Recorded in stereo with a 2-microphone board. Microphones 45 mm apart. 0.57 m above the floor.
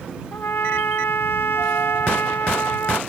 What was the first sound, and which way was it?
A trumpet, 55° left (ahead or behind).